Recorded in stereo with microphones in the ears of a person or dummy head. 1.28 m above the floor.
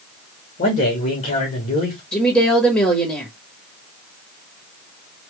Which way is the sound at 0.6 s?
35° left (ahead or behind).